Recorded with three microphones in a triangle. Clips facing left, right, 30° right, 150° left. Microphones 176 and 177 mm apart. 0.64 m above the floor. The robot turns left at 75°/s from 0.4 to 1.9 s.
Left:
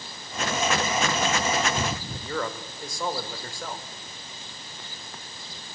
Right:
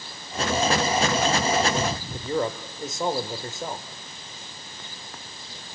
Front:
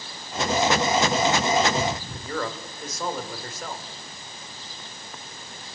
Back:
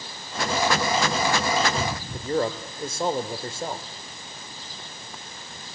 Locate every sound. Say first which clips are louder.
2.1 s a man speaking: right 5 dB, back 6 dB; 155° right, 2.5 m